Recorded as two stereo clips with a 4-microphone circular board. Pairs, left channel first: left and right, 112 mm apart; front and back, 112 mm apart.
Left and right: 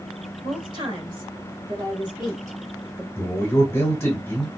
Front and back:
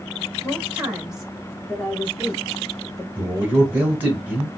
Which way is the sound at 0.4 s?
110° right.